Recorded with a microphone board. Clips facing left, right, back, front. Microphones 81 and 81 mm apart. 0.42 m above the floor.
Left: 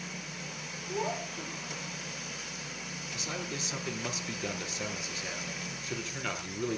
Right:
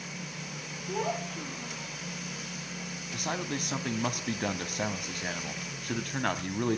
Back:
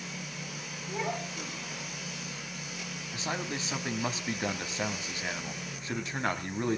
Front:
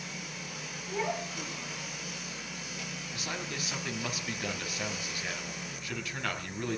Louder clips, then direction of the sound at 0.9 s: Right 2 dB, front 1 dB; 100° right.